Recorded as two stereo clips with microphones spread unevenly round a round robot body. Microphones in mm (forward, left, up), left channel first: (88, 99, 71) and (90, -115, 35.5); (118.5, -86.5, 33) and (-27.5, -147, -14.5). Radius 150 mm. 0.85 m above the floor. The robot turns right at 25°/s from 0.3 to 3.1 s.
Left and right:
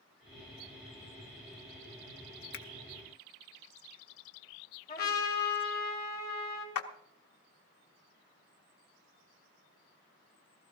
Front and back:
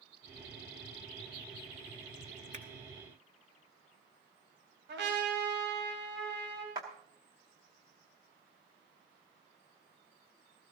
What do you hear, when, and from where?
2.5 s a finger snap: 145° left, 0.6 m
4.9 s a trumpet: 165° left, 3 m
6.8 s a clap: 125° left, 0.8 m